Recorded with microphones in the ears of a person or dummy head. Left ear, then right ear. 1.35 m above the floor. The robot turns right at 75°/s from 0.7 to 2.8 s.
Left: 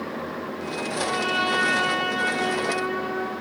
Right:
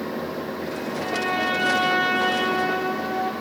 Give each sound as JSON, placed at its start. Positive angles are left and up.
{"t": 0.9, "sound": "a trumpet", "azimuth_deg": 125, "distance_m": 4.0}